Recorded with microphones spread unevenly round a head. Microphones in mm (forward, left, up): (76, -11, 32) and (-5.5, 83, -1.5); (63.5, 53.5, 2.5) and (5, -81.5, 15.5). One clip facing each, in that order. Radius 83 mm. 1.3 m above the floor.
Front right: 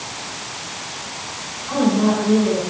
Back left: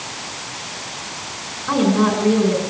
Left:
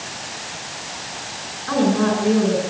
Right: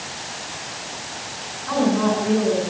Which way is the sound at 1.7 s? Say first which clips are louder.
Back left 1 dB, left 1 dB; 125° left.